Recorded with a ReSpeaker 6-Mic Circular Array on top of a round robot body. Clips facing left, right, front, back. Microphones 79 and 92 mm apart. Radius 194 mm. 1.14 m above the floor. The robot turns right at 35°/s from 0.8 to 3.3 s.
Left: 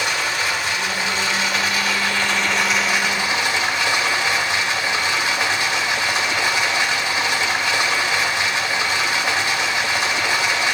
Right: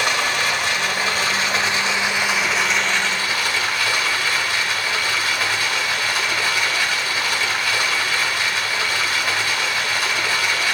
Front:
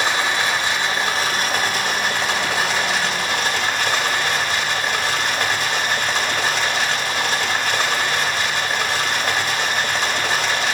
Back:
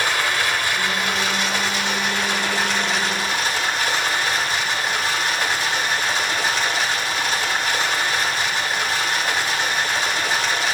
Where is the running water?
65° right, 2 m; by 10.8 s 25° left, 2 m.